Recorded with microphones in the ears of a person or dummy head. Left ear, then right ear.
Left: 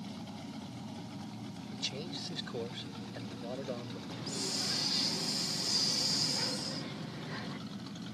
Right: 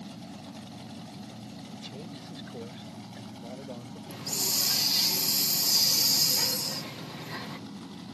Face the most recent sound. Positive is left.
turn(degrees=-5)  # may be behind; listen again after turning